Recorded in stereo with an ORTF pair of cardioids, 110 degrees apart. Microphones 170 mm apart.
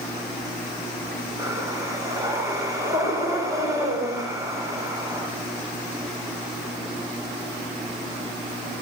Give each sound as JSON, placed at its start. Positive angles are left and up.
{"t": 1.4, "sound": "breathing", "azimuth_deg": -20, "distance_m": 8.0}